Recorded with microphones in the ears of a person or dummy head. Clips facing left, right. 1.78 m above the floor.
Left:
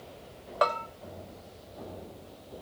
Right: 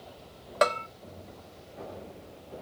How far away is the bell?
About 0.5 m.